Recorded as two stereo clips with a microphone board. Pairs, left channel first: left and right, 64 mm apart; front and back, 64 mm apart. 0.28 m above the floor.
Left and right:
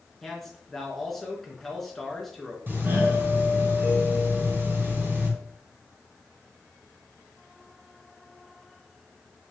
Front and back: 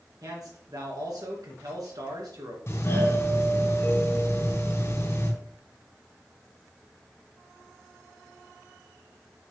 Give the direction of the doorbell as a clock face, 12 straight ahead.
1 o'clock.